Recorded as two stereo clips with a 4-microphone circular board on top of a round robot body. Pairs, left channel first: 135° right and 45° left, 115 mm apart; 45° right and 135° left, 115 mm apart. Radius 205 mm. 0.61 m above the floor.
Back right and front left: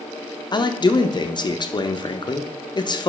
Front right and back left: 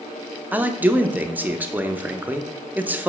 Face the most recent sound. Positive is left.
turn(degrees=-155)